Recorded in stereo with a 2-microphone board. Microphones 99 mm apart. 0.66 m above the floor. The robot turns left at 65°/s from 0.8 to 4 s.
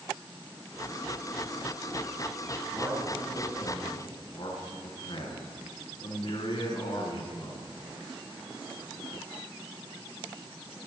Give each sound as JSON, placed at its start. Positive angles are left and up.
{"t": 2.7, "sound": "a man speaking", "azimuth_deg": -145, "distance_m": 8.5}